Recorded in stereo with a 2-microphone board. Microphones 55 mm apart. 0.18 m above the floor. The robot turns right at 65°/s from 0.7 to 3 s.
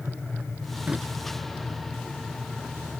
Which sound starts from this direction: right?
A drawer, at 0.9 s.